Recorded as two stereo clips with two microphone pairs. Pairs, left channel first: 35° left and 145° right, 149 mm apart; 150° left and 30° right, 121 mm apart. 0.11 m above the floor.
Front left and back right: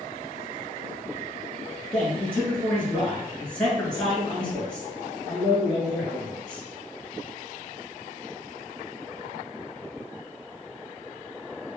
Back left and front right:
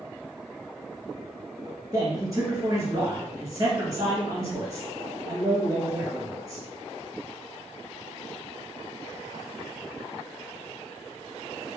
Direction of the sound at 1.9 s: 45° right.